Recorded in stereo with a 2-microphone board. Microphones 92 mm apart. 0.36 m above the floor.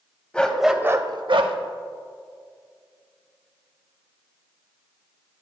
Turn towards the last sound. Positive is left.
turn(degrees=-70)  # may be behind; listen again after turning